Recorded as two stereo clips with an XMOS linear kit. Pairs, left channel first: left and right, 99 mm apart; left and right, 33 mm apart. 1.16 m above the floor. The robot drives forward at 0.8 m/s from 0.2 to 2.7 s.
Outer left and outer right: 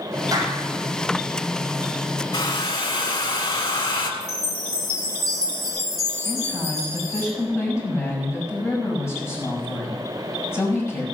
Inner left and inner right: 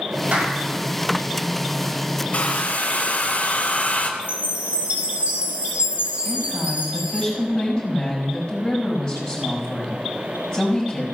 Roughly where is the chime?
Right.